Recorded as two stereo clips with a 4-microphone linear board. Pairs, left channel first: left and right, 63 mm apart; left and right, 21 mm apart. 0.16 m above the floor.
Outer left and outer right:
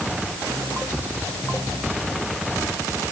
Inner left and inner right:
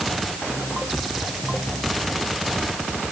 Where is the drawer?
No drawer in this recording.